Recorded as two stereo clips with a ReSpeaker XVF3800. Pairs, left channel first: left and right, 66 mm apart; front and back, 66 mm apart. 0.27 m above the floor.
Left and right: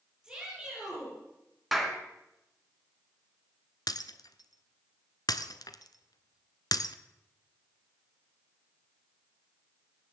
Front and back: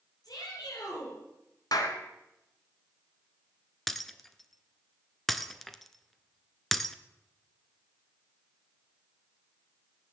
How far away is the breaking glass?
About 0.8 m.